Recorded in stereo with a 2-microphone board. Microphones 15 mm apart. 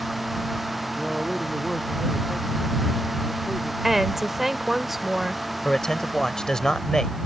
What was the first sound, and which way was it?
A man speaking, 20° left (ahead or behind).